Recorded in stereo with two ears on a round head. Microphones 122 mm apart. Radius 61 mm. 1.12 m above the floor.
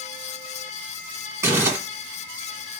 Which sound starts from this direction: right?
Crumpling, at 1.4 s.